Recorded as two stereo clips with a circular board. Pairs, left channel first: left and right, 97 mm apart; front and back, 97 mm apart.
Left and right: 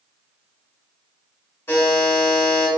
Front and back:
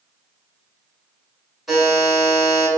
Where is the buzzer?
95° left, 1.4 m.